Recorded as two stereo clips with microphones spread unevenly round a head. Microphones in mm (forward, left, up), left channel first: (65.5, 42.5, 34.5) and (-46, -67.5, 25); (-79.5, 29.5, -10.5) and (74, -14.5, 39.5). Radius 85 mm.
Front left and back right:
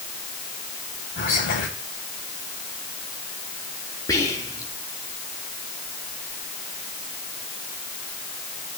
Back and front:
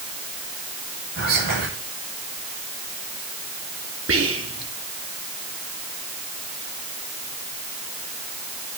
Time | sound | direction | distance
1.2 | whispering | straight ahead | 8 m
4.1 | whispering | 25° right | 3 m